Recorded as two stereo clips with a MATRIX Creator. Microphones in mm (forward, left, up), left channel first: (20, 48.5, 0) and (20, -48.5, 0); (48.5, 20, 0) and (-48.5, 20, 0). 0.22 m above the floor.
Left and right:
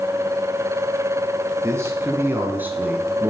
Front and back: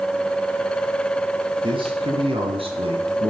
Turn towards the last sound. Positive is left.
turn(degrees=-170)